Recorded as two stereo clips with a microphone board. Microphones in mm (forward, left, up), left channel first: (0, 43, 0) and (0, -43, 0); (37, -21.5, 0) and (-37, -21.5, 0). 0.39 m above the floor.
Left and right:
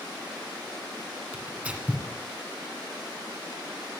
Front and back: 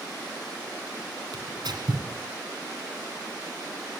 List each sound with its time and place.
1.3 s tearing paper: 165° right, 2 m